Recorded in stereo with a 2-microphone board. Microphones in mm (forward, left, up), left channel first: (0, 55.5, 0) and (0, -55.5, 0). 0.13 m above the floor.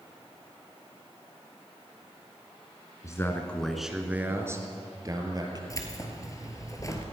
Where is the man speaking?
30° left (ahead or behind), 1.4 m; by 5.6 s 40° right (ahead or behind), 3 m.